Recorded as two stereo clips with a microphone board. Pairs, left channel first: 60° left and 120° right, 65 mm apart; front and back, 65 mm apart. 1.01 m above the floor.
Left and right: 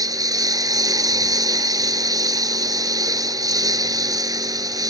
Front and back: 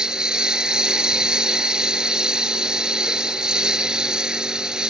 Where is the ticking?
I don't hear ticking.